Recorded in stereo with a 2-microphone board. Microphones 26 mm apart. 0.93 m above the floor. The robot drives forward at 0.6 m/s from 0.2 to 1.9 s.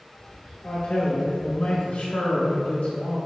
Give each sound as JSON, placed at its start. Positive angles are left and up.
{"t": 0.6, "sound": "a man speaking", "side_deg": 75, "distance_m": 2.0}